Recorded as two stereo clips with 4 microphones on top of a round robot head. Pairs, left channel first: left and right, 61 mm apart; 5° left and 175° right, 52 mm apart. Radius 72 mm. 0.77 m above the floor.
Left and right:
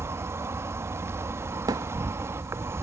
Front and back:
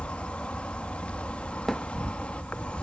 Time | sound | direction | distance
0.0 | an insect | 55° right | ?
1.7 | a thud | 75° right | ?